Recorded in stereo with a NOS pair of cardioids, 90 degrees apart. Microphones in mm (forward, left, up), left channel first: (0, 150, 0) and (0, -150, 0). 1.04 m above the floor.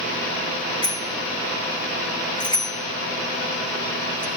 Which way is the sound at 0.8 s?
15° left.